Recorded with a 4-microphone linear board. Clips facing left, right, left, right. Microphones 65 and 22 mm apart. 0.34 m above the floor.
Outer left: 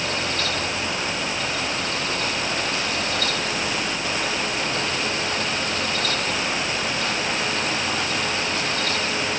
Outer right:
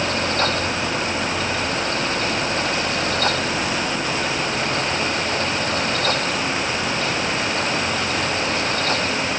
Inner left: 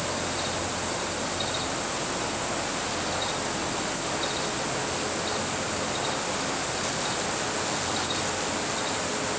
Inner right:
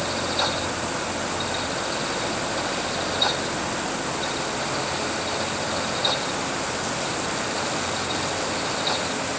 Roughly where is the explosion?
No explosion in this recording.